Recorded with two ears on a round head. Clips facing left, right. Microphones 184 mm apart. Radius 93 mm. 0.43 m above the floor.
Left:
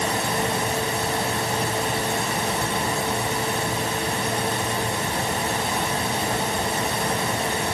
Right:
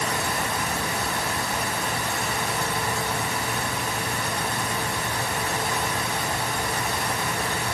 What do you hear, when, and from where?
Only background noise.